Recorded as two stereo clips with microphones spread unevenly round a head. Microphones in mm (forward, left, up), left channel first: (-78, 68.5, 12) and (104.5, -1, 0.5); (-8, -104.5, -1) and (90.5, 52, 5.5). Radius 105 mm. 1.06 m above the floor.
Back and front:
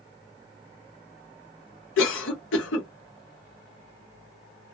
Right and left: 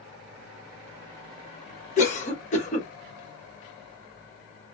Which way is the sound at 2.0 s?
175° right.